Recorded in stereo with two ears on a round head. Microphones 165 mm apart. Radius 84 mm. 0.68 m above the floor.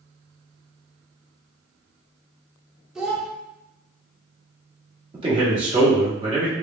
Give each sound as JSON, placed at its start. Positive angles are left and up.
{"t": 3.0, "sound": "a child speaking", "side_deg": -5, "distance_m": 1.2}
{"t": 5.1, "sound": "a man speaking", "side_deg": -25, "distance_m": 1.5}